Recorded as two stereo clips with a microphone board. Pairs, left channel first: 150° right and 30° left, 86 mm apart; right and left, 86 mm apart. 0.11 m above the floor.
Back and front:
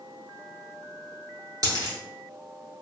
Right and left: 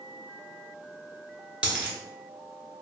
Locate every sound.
1.6 s a dropped coin: 20° left, 0.9 m